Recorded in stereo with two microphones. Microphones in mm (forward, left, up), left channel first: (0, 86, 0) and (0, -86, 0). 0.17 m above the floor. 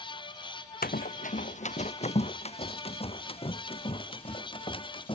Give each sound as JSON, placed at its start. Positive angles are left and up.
{"t": 0.8, "sound": "running footsteps", "side_deg": 60}